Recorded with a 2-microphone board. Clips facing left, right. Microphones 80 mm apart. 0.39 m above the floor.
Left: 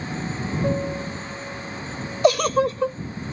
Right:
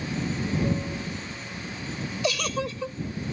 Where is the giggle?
45° left (ahead or behind).